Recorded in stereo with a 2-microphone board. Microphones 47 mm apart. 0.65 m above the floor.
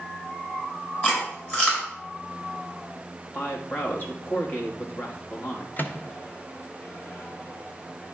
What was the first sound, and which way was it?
Chewing, 35° left (ahead or behind).